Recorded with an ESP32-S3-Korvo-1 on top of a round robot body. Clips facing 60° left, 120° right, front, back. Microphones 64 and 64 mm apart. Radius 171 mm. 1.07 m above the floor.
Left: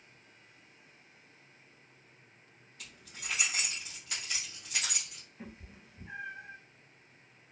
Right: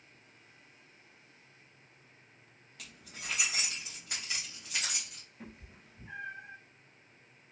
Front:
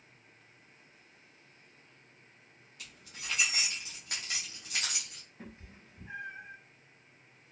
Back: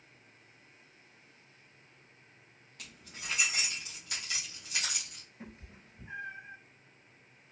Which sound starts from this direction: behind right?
Keys jangling, at 2.8 s.